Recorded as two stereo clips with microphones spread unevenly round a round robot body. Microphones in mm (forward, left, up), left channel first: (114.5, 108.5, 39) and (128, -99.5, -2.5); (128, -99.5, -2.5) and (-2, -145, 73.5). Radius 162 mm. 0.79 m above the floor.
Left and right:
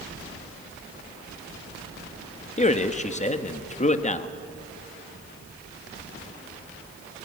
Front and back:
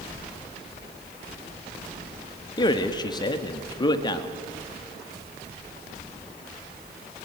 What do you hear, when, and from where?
2.6 s a man speaking: 35° left, 1.5 m